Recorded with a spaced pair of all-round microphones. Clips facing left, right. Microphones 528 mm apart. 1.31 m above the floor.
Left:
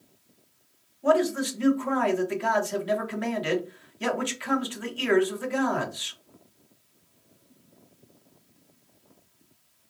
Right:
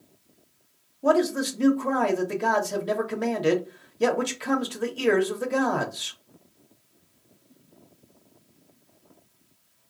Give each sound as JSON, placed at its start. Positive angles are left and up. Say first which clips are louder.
{"t": 1.0, "sound": "a man speaking", "louder": "right 1 dB", "side_deg": -55, "distance_m": 0.9}